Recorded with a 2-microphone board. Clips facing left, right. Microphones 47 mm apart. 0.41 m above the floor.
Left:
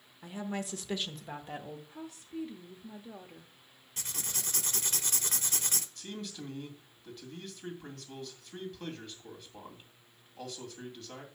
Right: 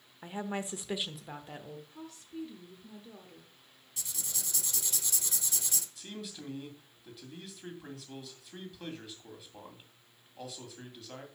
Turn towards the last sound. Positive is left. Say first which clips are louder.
# left 2 dB
turn(degrees=-5)  # may be behind; listen again after turning